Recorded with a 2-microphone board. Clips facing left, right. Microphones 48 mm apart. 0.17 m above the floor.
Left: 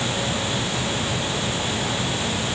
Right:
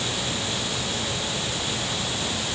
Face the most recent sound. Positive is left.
No sound to turn to.